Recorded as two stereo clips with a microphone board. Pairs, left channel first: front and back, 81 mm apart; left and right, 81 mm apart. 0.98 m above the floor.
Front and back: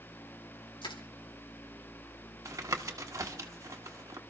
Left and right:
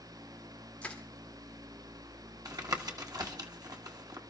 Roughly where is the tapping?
Behind right.